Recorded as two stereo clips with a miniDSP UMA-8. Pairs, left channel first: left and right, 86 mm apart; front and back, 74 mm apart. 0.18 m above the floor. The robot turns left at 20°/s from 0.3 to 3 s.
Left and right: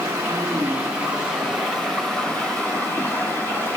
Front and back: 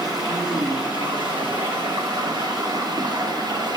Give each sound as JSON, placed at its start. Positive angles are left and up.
{"t": 0.0, "sound": "running water", "azimuth_deg": -150, "distance_m": 2.5}